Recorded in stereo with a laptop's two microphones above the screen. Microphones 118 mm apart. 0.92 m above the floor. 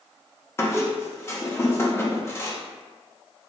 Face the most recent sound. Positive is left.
turn(degrees=20)  # may be behind; listen again after turning